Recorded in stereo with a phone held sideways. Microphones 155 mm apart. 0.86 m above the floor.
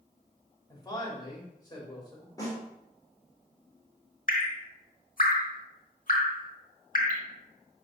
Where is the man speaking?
25° left (ahead or behind), 3.5 m.